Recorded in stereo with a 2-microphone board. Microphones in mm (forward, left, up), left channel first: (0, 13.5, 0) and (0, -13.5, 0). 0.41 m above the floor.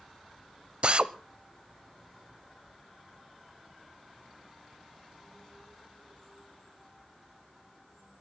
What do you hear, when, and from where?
0.8 s a drill: 45° right (ahead or behind), 0.6 m